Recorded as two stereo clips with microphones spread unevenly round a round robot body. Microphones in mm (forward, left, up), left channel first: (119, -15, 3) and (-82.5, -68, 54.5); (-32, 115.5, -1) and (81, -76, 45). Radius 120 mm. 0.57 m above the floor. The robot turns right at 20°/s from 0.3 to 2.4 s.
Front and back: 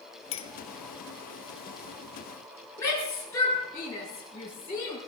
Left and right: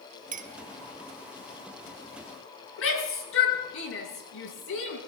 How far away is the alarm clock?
No alarm clock in this recording.